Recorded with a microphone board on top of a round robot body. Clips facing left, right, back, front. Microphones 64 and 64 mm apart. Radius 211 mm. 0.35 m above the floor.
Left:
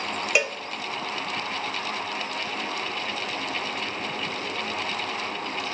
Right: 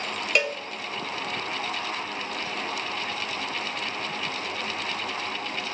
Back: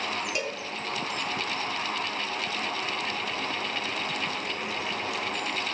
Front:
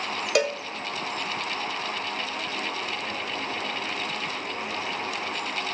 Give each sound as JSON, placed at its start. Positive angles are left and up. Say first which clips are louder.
{"t": 0.3, "sound": "a cowbell", "louder": "even, front 8 dB", "azimuth_deg": 10, "distance_m": 0.6}